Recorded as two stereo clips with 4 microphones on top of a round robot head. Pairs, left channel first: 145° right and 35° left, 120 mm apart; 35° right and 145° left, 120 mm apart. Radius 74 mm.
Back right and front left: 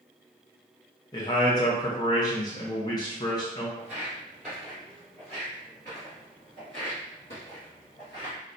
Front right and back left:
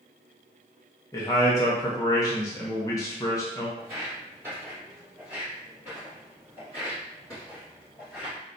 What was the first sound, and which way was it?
A man speaking, 95° right.